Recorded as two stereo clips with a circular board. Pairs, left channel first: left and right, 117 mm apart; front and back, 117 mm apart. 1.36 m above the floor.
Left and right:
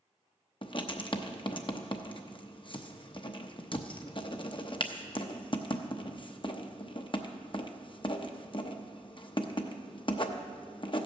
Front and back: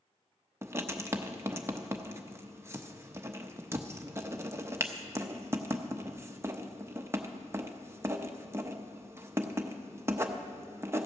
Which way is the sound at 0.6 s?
120° left.